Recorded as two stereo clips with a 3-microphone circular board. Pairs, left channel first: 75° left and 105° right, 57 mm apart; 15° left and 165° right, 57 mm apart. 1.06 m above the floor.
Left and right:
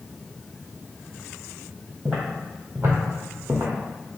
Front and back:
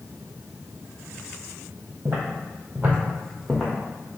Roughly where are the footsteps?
Behind.